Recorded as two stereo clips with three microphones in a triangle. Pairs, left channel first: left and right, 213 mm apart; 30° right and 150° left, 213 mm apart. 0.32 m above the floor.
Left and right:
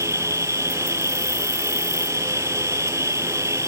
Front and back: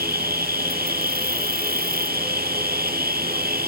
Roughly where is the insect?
Behind.